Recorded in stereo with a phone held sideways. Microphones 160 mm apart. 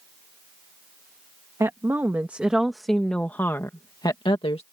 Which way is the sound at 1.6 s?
20° right (ahead or behind).